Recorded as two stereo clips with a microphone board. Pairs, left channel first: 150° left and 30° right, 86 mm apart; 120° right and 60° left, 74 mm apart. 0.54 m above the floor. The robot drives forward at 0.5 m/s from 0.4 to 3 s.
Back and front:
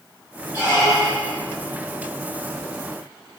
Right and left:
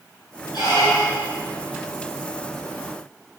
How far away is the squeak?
About 3 m.